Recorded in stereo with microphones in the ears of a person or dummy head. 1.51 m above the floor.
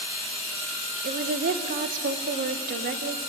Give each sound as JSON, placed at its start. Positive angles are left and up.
{"t": 1.0, "sound": "a woman speaking", "side_deg": -45, "distance_m": 1.3}